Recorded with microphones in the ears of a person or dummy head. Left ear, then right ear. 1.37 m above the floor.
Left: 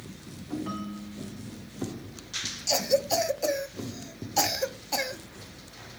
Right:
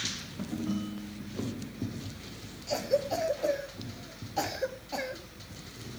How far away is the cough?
About 1.7 m.